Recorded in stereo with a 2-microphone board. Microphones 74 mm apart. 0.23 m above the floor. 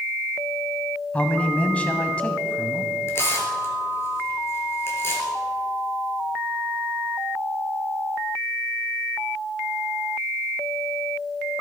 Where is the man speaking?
20° left (ahead or behind), 1.3 m.